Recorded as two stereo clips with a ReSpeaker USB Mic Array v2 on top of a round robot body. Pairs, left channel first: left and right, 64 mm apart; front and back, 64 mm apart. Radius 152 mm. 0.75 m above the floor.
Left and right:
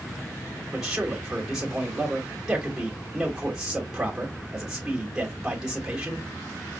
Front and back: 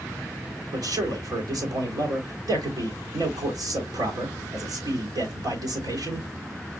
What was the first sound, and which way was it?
A man speaking, 170° right.